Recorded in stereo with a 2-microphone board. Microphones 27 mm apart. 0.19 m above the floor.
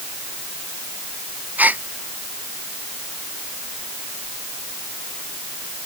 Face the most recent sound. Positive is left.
turn(degrees=-70)  # may be behind; listen again after turning